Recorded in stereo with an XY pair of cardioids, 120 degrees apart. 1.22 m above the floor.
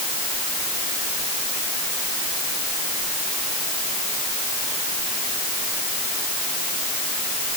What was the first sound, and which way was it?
Only background noise.